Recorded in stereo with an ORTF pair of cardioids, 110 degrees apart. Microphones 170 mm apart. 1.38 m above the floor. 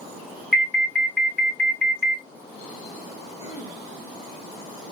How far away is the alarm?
About 1.7 m.